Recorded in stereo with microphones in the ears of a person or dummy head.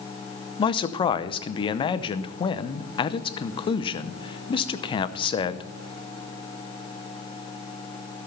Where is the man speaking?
30° left (ahead or behind), 0.7 m.